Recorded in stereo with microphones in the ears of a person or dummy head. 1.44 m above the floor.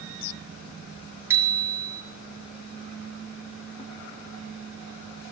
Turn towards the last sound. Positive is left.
turn(degrees=-10)  # may be behind; listen again after turning